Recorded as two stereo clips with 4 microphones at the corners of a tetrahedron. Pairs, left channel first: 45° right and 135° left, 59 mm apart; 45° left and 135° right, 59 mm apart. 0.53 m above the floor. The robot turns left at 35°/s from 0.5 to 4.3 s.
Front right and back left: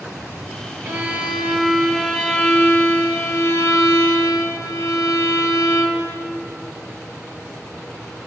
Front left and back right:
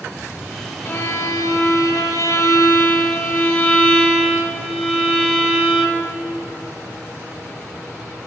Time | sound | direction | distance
0.8 | a violin | 90° left | 1.1 m